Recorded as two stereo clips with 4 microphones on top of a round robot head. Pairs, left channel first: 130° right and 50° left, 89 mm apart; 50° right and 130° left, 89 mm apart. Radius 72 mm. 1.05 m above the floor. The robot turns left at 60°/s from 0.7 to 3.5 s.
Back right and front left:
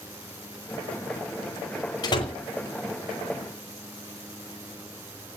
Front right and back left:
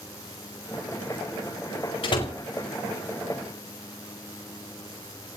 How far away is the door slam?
About 4 m.